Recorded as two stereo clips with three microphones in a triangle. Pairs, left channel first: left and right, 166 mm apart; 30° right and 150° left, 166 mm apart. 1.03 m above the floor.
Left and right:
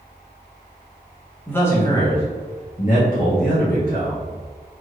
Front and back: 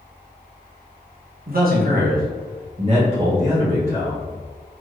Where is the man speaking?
170° left, 1.0 m; by 4.3 s 70° left, 1.2 m.